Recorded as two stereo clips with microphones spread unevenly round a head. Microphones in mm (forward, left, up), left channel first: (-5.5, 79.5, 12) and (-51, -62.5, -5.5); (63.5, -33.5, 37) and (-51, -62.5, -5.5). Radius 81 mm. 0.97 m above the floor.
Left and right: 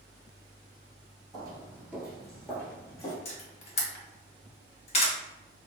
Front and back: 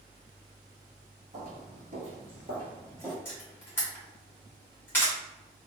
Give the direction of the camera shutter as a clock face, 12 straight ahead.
10 o'clock.